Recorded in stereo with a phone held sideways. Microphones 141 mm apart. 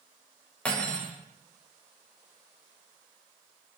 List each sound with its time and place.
0.7 s cutlery clinking: 10° left (ahead or behind), 0.6 m